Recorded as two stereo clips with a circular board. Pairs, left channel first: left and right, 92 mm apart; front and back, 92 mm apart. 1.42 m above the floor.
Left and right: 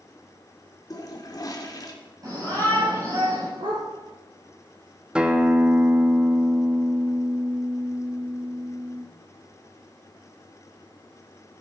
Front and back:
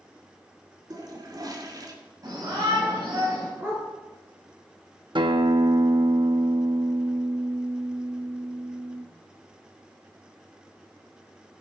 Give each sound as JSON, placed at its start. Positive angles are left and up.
{"t": 0.9, "sound": "a toilet flushing", "azimuth_deg": 135, "distance_m": 2.5}
{"t": 2.2, "sound": "a shout", "azimuth_deg": -135, "distance_m": 8.0}
{"t": 3.6, "sound": "a dog barking", "azimuth_deg": -115, "distance_m": 7.5}
{"t": 5.2, "sound": "a guitar", "azimuth_deg": -170, "distance_m": 1.3}